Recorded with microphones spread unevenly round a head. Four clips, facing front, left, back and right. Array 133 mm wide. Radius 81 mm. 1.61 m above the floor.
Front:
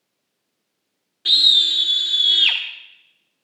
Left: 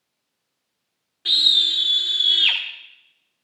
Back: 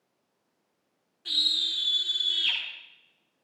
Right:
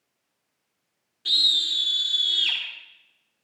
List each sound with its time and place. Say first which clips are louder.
1.2 s a scream: left 4 dB, front 11 dB; 30° left, 1.3 m